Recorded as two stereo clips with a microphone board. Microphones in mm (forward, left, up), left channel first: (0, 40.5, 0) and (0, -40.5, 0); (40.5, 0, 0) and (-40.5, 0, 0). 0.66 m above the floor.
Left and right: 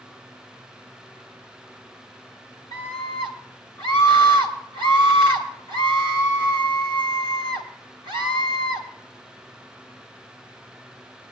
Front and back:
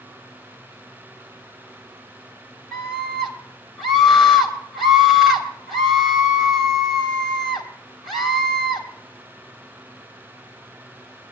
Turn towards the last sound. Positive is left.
turn(degrees=-85)